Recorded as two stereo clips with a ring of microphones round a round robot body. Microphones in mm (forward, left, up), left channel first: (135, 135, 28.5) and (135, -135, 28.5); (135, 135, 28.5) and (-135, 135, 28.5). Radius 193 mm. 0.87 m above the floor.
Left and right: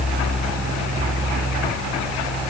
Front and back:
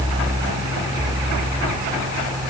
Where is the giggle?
No giggle in this recording.